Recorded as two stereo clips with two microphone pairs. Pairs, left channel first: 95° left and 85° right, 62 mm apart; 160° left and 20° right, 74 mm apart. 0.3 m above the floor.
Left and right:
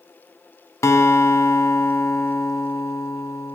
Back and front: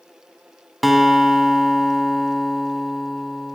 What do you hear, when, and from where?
0.8 s a guitar: 70° left, 0.8 m